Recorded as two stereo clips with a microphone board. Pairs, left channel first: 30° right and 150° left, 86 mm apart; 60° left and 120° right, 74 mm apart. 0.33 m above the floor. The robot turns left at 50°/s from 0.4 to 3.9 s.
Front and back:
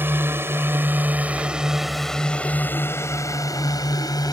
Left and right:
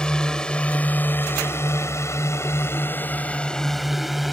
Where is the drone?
125° left; by 4.3 s 30° right.